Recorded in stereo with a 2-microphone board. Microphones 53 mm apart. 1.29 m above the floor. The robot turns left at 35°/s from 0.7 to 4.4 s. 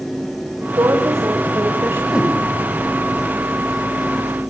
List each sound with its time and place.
0.8 s a woman speaking: 85° right, 4.5 m; by 2.0 s 130° right, 4.5 m
2.1 s a whoosh: 15° right (ahead or behind), 4.5 m; by 2.4 s 25° right (ahead or behind), 4.5 m